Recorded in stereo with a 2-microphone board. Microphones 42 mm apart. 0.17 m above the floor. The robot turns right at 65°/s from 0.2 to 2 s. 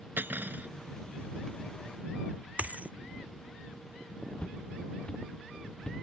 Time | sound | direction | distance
0.2 | cutlery clinking | 85° right | ?
2.6 | a dropped coin | 40° right (ahead or behind) | ?
4.4 | footsteps | 25° left (ahead or behind) | ?